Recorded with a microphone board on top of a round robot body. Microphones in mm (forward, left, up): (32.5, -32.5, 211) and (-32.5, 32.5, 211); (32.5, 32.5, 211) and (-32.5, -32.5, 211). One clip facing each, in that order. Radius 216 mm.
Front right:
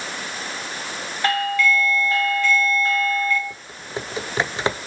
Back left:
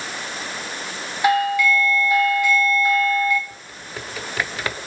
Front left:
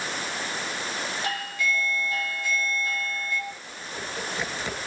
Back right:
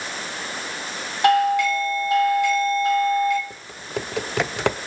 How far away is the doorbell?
About 4 m.